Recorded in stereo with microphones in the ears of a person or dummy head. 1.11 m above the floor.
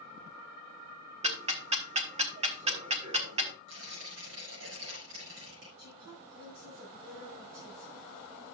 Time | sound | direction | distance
1.2 | ticking | 40° right (ahead or behind) | 1.0 m
3.7 | tearing paper | 80° right | 4.5 m
5.8 | a woman speaking | 50° right (ahead or behind) | 5.5 m